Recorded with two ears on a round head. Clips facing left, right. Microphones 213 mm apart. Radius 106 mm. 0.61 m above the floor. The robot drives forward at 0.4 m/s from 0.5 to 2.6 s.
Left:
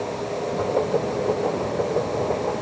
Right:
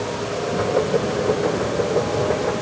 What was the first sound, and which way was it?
Only background noise.